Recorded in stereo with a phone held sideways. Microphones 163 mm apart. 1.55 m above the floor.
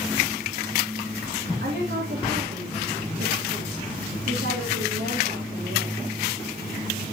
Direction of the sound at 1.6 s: 85° right.